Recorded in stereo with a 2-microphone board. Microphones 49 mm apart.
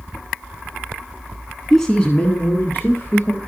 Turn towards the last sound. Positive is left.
turn(degrees=50)  # may be behind; listen again after turning